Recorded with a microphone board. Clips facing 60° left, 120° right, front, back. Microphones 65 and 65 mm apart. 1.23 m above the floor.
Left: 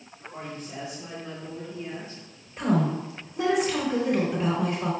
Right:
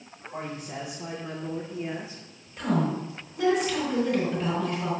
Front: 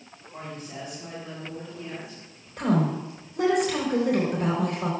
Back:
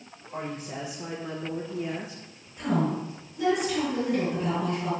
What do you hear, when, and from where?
0.3 s a woman speaking: 170° left, 2.5 m
2.6 s a woman speaking: 5° left, 3.5 m